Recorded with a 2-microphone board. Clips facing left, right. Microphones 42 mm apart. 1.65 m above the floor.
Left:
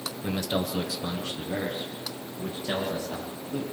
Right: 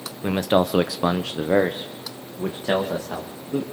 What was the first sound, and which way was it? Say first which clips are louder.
A man speaking: right 9 dB; 35° right (ahead or behind).